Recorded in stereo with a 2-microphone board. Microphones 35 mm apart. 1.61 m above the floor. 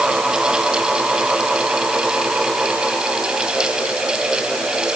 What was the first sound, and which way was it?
Only background noise.